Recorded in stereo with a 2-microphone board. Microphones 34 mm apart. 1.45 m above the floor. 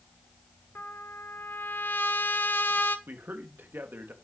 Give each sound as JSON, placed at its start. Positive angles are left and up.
{"t": 0.8, "sound": "a trumpet", "side_deg": 75, "distance_m": 1.2}
{"t": 3.1, "sound": "a man speaking", "side_deg": -85, "distance_m": 3.0}